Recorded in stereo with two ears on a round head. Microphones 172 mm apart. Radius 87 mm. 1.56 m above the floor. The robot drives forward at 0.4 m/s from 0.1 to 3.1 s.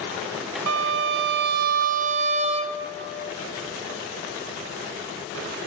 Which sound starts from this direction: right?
A violin, at 0.7 s.